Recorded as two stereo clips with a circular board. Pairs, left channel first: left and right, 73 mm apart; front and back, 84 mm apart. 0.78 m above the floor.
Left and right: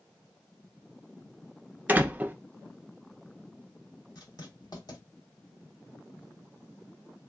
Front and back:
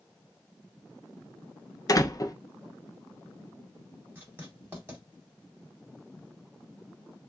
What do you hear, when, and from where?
1.9 s a door slam: 30° right, 0.6 m
4.2 s writing: 115° left, 2.0 m